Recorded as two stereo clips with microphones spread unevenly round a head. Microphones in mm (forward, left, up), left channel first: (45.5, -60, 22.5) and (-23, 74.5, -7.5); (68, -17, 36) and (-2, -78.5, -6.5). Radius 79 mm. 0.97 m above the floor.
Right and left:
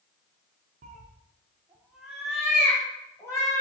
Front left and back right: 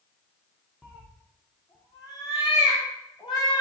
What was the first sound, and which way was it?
A cat meowing, 100° left.